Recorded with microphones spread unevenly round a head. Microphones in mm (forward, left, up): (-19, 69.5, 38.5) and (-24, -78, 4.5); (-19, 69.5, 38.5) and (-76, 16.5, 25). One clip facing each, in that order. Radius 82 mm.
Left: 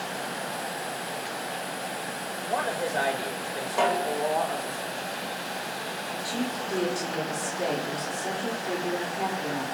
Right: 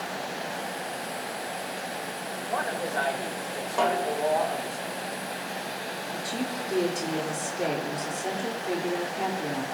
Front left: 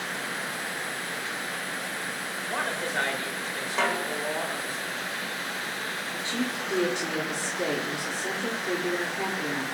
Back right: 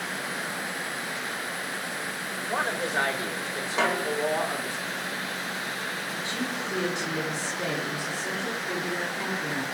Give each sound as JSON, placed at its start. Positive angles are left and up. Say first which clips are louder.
{"t": 2.5, "sound": "a man speaking", "louder": "left 2 dB, back right 2 dB", "azimuth_deg": 155, "distance_m": 3.0}
{"t": 3.8, "sound": "a snare drum", "louder": "even, back right 2 dB", "azimuth_deg": 120, "distance_m": 1.3}
{"t": 6.1, "sound": "a woman speaking", "louder": "left 1 dB, front left 3 dB", "azimuth_deg": -20, "distance_m": 3.0}